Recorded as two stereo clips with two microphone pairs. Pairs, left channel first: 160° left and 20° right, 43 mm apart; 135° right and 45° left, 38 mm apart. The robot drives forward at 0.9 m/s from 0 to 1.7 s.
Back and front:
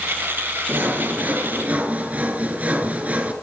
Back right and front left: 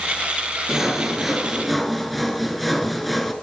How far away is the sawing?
About 2.5 m.